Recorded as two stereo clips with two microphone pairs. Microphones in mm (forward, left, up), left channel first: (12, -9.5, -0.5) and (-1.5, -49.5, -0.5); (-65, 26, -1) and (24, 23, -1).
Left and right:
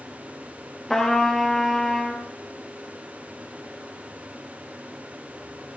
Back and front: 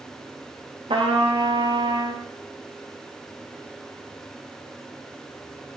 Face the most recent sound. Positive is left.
turn(degrees=-10)